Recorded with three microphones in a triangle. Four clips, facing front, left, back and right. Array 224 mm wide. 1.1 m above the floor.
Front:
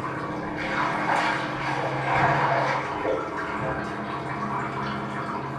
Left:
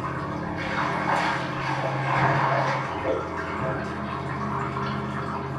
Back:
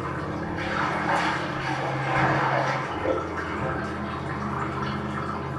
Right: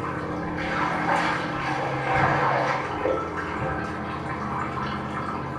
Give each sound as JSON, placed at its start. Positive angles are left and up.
{"t": 0.0, "sound": "running water", "azimuth_deg": -85, "distance_m": 1.4}